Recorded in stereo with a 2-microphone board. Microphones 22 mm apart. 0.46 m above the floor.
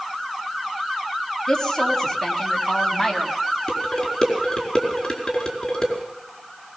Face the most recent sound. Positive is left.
turn(degrees=30)  # may be behind; listen again after turning